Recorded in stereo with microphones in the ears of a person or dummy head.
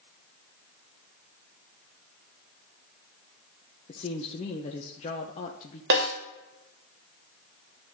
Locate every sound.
3.9 s a woman speaking: 40° left (ahead or behind), 1.0 m
5.9 s a snare drum: 70° right (ahead or behind), 2 m